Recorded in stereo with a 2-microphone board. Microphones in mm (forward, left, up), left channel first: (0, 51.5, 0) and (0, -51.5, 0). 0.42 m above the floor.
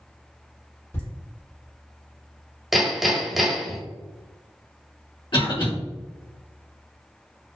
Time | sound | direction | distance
0.9 | laughter | 30° left (ahead or behind) | 1.9 m
2.7 | hammering | centre (ahead or behind) | 0.7 m
5.3 | a cough | 50° left (ahead or behind) | 1.8 m